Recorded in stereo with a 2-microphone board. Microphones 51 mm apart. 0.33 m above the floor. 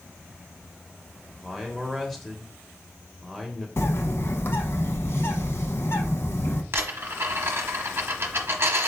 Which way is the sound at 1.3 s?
5° left (ahead or behind).